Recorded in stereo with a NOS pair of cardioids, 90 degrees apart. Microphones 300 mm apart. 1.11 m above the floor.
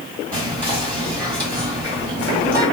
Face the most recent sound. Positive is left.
turn(degrees=-15)